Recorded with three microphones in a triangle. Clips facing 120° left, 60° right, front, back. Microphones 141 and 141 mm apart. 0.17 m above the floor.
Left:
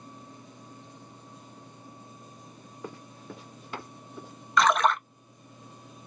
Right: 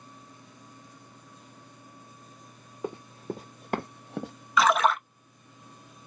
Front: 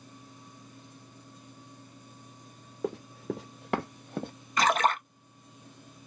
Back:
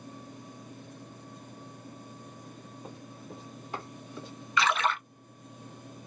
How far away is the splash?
About 0.6 m.